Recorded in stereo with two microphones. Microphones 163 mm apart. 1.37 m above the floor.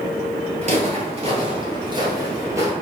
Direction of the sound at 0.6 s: 45° right (ahead or behind).